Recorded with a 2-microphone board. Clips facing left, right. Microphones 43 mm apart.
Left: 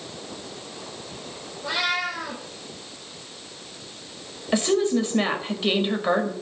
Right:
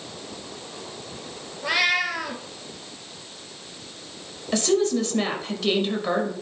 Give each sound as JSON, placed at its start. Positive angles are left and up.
{"t": 1.6, "sound": "a cat meowing", "side_deg": -80, "distance_m": 1.8}
{"t": 4.5, "sound": "a woman speaking", "side_deg": 20, "distance_m": 1.5}